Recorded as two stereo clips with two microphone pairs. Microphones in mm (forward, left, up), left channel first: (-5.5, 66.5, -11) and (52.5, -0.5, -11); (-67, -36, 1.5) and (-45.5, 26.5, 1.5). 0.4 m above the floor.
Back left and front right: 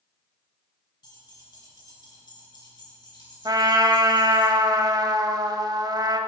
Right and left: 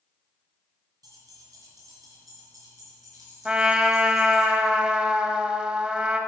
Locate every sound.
1.0 s keys jangling: 95° left, 3.5 m; by 4.5 s 105° left, 5 m
3.5 s a trumpet: 5° right, 0.7 m